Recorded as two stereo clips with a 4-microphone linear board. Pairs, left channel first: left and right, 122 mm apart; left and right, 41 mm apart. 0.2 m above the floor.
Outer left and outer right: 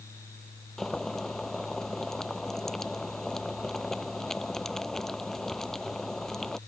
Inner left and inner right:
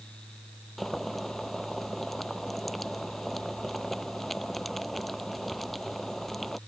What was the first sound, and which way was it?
Boiling, 5° left (ahead or behind).